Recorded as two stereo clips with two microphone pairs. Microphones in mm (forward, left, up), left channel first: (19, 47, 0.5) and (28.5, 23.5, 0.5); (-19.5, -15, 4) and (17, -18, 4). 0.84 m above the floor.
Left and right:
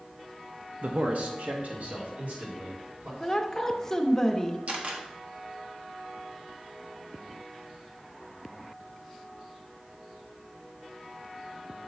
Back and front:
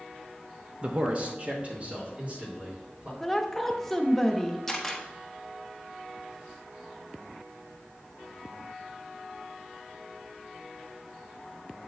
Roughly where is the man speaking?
Ahead right.